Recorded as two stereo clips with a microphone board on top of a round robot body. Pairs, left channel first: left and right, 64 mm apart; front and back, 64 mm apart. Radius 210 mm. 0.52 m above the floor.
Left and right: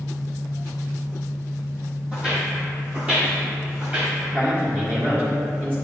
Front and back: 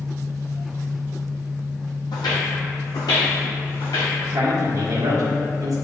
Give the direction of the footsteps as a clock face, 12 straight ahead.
12 o'clock.